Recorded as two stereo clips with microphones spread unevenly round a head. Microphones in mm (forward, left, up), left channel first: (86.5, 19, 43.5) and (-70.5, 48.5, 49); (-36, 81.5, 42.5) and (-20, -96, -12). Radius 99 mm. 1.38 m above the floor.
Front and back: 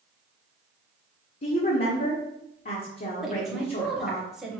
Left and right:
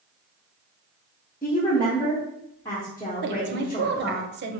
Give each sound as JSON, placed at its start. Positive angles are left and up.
{"t": 1.4, "sound": "a woman speaking", "azimuth_deg": 20, "distance_m": 0.9}
{"t": 3.2, "sound": "a woman speaking", "azimuth_deg": -105, "distance_m": 0.7}